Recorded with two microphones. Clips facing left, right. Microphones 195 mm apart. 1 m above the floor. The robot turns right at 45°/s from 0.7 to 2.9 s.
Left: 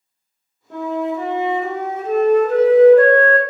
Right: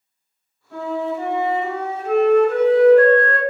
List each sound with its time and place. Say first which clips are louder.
0.7 s a flute: left 2 dB; 60° left, 0.6 m; by 3.4 s 160° left, 0.6 m